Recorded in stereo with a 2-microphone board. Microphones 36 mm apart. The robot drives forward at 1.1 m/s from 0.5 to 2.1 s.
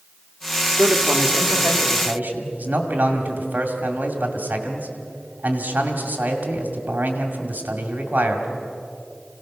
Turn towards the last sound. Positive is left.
turn(degrees=-55)  # may be behind; listen again after turning